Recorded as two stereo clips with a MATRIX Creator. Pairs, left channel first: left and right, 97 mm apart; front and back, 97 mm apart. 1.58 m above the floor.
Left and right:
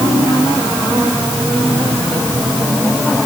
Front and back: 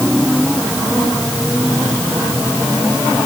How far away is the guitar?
No guitar in this recording.